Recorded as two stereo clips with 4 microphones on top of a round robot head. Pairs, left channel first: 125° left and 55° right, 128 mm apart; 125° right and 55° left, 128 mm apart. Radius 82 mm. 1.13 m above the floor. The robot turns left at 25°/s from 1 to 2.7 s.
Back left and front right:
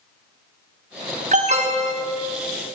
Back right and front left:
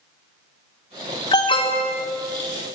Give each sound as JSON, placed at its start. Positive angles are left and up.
{"t": 1.3, "sound": "an alarm", "azimuth_deg": -70, "distance_m": 1.5}